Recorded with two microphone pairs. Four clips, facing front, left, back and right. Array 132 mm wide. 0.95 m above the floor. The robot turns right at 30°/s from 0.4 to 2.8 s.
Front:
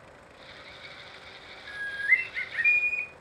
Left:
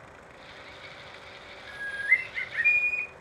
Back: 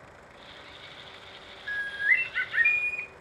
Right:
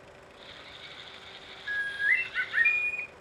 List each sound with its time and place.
1.7 s a bird: 155° right, 0.6 m; by 3.1 s 120° right, 0.6 m